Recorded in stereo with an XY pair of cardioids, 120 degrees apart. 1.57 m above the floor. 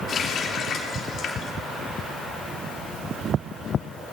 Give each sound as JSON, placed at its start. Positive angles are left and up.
{"t": 0.1, "sound": "a running tap", "azimuth_deg": 55, "distance_m": 3.0}